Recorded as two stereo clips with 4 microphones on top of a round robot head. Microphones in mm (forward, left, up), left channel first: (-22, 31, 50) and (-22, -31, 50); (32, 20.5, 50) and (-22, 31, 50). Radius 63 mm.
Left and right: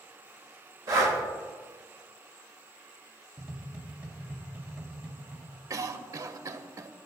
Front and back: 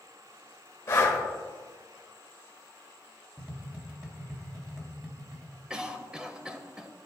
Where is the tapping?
130° right, 1.0 m.